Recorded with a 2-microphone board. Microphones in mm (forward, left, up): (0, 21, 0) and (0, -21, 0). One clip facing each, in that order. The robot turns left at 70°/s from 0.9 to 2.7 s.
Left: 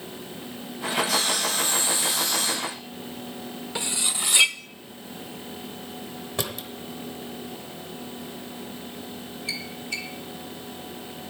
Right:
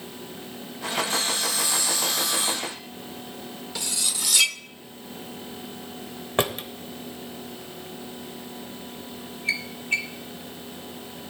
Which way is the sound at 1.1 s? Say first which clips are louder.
Left 2 dB; 80° left.